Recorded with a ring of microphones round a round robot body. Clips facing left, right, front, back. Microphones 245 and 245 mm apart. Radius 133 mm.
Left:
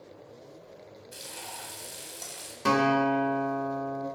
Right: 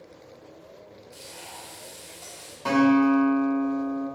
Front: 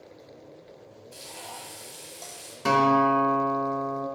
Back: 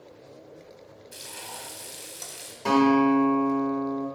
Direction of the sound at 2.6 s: 45° left.